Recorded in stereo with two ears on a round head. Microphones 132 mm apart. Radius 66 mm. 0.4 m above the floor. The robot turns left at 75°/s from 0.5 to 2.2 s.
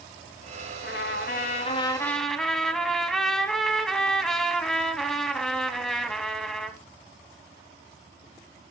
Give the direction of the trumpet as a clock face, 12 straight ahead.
8 o'clock.